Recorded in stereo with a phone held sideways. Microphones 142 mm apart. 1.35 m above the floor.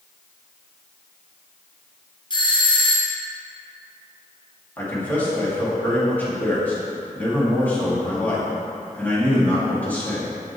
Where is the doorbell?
35° left (ahead or behind), 0.8 m.